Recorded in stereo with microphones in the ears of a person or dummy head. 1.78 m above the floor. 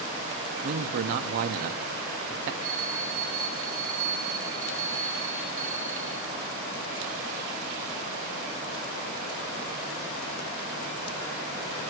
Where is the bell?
35° right (ahead or behind), 3 m.